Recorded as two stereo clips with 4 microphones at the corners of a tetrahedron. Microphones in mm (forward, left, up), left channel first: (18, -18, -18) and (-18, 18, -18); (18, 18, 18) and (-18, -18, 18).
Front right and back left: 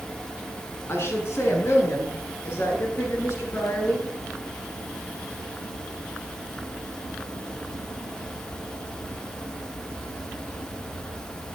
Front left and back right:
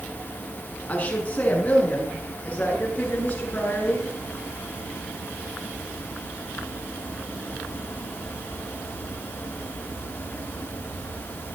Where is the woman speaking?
15° right, 6 m.